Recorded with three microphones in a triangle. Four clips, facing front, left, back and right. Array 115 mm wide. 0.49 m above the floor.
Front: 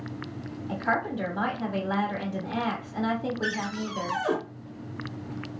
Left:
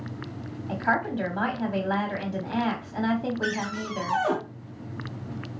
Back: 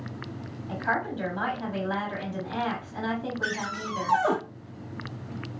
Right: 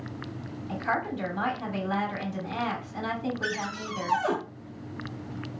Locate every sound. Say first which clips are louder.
0.7 s a woman speaking: left 3 dB, front 1 dB; 85° left, 1.0 m
3.4 s a cupboard door: left 3 dB, front 1 dB; 175° right, 0.7 m